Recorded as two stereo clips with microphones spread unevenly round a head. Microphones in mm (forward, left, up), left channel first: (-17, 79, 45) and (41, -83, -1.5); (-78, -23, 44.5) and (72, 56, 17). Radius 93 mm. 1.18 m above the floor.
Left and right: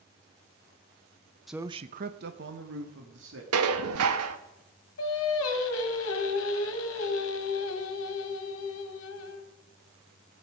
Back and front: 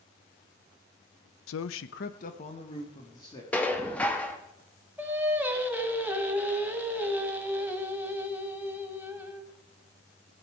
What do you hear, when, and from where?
1.5 s a man speaking: 160° right, 0.6 m; by 3.4 s 80° right, 1.9 m
3.5 s dishes clattering: 75° right, 0.9 m
5.0 s singing: 110° left, 1.5 m